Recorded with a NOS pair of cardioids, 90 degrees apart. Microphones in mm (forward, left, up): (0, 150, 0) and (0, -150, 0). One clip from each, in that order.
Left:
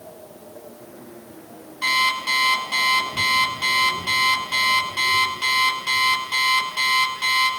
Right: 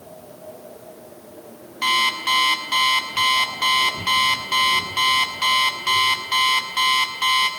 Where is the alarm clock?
30° right, 7 m.